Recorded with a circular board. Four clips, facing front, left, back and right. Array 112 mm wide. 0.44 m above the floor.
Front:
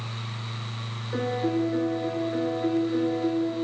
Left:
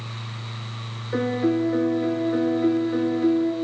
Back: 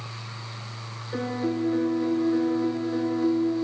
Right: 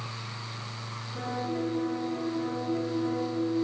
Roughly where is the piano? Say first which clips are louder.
Left 11 dB, front 1 dB; left.